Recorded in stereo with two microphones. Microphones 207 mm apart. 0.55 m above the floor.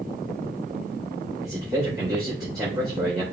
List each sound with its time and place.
1.4 s a man speaking: 20° right (ahead or behind), 2 m